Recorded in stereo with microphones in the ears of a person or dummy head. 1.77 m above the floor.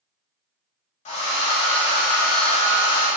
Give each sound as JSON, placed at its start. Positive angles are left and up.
{"t": 1.1, "sound": "a hair dryer", "side_deg": 35, "distance_m": 0.9}